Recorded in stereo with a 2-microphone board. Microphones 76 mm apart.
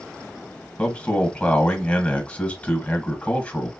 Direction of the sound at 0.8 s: 20° left (ahead or behind).